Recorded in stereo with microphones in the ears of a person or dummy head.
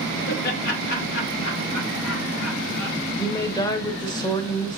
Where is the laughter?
50° left (ahead or behind), 1.3 m; by 3.0 s 80° left, 2.5 m.